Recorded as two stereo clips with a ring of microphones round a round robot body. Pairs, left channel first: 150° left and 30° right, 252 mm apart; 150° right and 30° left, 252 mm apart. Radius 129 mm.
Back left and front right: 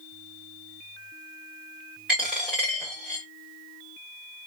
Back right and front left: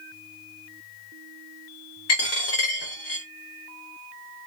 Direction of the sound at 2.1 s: 115° right.